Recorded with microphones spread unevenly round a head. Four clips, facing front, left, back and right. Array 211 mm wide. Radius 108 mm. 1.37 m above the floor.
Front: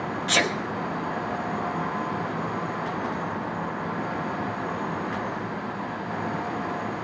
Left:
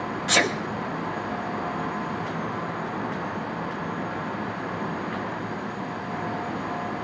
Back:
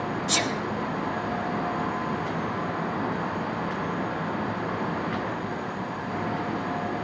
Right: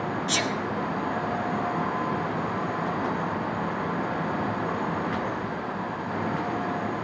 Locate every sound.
0.3 s a sneeze: 60° left, 1.3 m